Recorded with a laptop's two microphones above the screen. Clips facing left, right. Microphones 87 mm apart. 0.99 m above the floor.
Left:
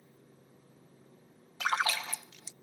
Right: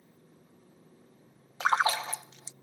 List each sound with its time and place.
1.6 s a splash: 25° right (ahead or behind)